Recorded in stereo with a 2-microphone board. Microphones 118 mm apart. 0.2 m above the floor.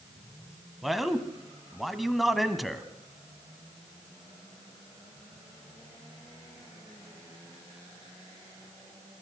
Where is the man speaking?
Centre (ahead or behind), 1.2 m.